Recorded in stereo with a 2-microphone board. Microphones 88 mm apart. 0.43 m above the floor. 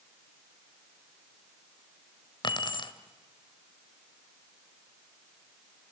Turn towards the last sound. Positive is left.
turn(degrees=60)  # may be behind; listen again after turning